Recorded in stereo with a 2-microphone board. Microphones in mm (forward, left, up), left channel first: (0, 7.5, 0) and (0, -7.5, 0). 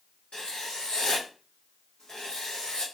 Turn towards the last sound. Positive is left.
turn(degrees=70)  # may be behind; listen again after turning